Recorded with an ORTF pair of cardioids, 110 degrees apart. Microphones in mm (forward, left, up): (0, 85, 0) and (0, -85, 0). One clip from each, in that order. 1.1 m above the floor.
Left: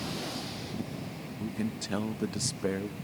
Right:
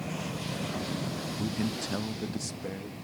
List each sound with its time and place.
1.4 s a man speaking: 20° right, 1.0 m; by 2.9 s 45° left, 1.3 m